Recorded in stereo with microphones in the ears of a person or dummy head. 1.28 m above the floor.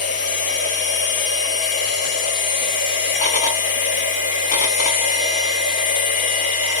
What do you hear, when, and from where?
0.0 s a machine running: 30° left (ahead or behind), 0.8 m